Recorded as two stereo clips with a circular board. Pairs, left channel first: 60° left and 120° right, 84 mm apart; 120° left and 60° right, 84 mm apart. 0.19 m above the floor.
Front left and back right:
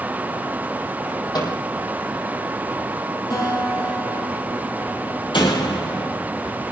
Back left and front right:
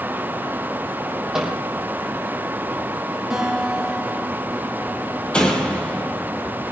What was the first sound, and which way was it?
A microwave, 25° left.